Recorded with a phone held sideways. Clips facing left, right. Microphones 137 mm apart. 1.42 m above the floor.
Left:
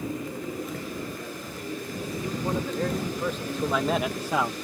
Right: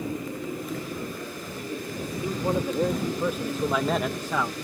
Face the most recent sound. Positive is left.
turn(degrees=20)  # may be behind; listen again after turning